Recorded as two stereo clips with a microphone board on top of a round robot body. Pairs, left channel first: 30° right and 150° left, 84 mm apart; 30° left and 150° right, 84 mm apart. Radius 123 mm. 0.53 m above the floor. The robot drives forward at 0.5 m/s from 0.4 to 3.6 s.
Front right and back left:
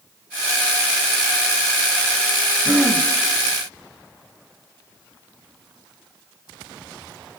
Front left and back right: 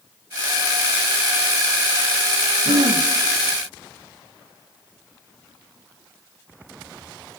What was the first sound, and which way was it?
Throat clearing, 135° right.